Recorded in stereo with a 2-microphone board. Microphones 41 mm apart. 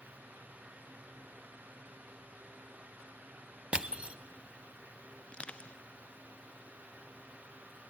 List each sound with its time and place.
3.7 s crushing: 25° right (ahead or behind), 0.6 m
5.3 s crushing: 30° left (ahead or behind), 0.6 m